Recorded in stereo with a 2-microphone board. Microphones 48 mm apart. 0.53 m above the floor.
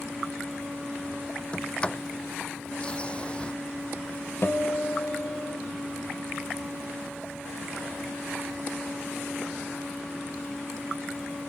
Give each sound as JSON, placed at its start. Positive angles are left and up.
{"t": 1.5, "sound": "a sliding door", "side_deg": 20}
{"t": 4.4, "sound": "a guitar", "side_deg": 55}